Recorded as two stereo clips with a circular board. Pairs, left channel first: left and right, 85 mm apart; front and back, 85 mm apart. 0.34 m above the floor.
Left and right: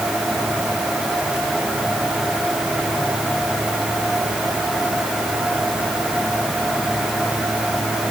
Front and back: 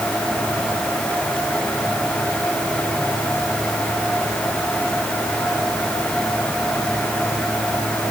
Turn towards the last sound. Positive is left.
No sound to turn to.